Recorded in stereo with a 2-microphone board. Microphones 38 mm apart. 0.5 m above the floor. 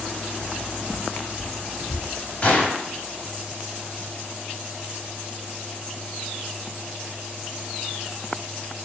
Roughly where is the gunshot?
Left.